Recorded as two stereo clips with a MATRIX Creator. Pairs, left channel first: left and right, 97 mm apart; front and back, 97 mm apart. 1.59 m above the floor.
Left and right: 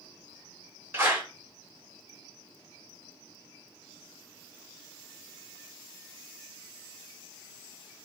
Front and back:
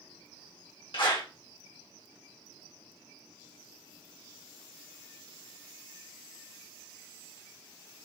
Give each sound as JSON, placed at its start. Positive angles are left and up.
{"t": 0.9, "sound": "a clap", "azimuth_deg": -20, "distance_m": 1.3}